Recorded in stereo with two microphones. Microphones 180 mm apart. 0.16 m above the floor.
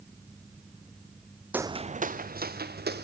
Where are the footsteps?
10° right (ahead or behind), 0.6 m; by 3.0 s 65° right (ahead or behind), 2 m.